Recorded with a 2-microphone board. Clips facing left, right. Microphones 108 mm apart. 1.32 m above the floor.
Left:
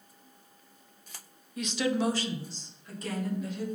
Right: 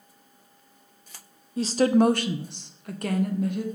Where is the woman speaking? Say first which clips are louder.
Right 9 dB; 30° right (ahead or behind), 0.6 m; by 3.6 s 55° right (ahead or behind), 1.5 m.